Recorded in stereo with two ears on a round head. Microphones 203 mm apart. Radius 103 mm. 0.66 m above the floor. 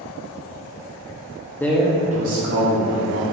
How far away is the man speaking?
About 0.6 m.